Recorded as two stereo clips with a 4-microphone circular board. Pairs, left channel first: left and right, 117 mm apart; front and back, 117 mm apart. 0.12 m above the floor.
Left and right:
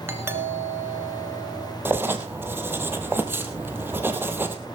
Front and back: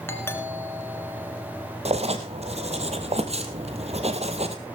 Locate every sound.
0.1 s a doorbell: 45° right, 1.7 m
1.9 s writing: 160° right, 1.8 m